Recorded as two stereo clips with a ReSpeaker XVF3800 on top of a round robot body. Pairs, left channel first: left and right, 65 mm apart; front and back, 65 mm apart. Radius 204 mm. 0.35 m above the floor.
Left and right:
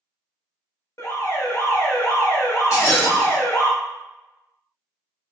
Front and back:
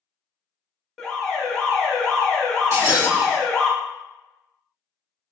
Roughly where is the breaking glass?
Behind left.